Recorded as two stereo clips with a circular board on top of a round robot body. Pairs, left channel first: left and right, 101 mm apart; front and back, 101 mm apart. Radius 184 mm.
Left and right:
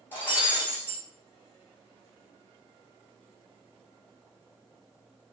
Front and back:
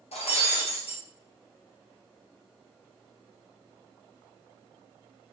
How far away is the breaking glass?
About 1.3 m.